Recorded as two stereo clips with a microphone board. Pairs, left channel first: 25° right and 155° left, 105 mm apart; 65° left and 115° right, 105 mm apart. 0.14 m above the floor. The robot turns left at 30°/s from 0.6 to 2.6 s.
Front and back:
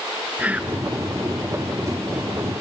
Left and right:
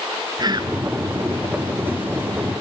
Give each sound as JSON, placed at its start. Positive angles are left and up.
{"t": 0.4, "sound": "whispering", "azimuth_deg": -130, "distance_m": 1.6}